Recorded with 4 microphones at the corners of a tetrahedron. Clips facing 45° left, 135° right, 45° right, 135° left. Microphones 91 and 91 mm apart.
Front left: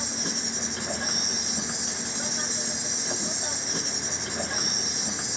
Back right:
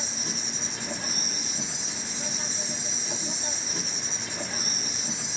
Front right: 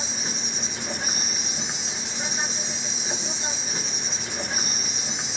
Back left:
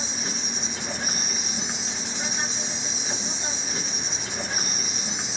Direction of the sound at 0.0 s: 45° left.